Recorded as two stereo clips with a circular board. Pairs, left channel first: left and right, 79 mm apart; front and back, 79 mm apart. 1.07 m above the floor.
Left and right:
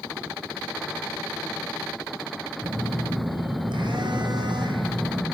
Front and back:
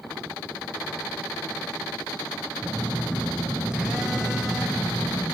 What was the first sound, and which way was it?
A phone buzzing, 100° right.